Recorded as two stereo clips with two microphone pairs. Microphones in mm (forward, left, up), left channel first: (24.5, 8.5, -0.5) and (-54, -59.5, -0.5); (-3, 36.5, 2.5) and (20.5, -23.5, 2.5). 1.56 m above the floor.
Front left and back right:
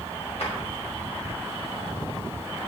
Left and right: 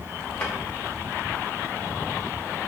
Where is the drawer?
40° left, 3.5 m.